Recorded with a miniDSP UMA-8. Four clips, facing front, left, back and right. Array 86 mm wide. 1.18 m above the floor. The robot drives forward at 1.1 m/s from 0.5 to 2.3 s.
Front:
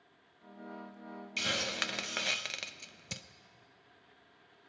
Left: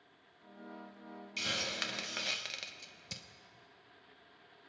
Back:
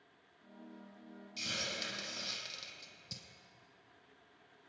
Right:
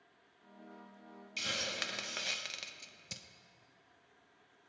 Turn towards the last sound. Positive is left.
turn(degrees=5)